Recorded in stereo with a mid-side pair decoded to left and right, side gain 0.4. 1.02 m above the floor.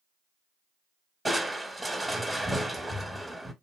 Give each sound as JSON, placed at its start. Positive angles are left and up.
{"t": 1.2, "sound": "crushing", "azimuth_deg": -15, "distance_m": 0.8}